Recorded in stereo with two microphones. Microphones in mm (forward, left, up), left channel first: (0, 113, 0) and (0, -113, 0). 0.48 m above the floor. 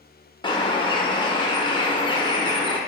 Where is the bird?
20° left (ahead or behind), 0.5 m.